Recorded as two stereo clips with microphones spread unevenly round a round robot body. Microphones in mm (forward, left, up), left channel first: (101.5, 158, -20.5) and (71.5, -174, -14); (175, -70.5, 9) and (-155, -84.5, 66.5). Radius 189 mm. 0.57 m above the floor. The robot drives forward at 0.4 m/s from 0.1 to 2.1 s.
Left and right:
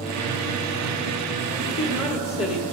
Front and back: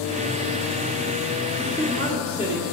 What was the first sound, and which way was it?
A woman speaking, 110° left.